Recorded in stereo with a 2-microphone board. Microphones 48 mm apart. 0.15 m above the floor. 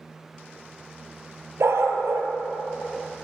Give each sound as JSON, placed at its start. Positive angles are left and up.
{"t": 1.6, "sound": "a dog barking", "side_deg": -70, "distance_m": 1.1}